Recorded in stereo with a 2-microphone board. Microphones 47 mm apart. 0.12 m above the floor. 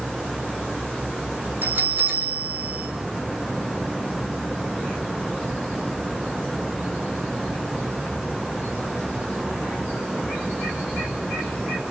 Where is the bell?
40° right (ahead or behind), 5.5 m.